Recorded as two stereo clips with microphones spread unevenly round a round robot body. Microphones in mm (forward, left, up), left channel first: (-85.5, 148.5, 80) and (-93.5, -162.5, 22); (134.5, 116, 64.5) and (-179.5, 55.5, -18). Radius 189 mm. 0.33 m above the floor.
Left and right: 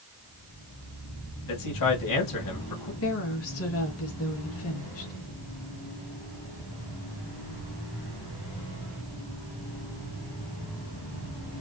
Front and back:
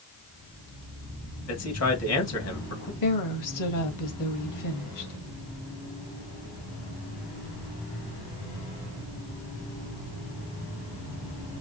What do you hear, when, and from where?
1.5 s a man speaking: 55° left, 2.5 m
3.0 s a woman speaking: 40° left, 1.9 m